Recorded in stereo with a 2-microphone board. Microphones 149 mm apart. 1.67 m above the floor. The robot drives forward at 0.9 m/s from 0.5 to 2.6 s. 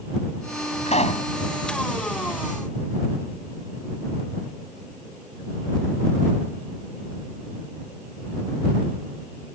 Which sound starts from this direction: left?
A pop, at 0.9 s.